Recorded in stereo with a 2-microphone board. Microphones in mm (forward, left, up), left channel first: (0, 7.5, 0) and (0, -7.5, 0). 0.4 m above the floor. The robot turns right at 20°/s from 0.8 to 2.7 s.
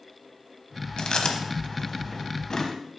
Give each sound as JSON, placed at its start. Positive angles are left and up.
{"t": 1.0, "sound": "chewing", "side_deg": 65, "distance_m": 1.1}